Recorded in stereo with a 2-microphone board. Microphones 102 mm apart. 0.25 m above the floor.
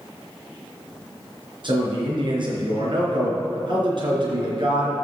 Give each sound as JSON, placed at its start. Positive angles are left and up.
{"t": 1.6, "sound": "a man speaking", "side_deg": -55, "distance_m": 3.5}